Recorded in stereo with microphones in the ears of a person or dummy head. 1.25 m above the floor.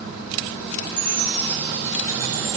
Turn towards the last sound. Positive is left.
turn(degrees=10)  # may be behind; listen again after turning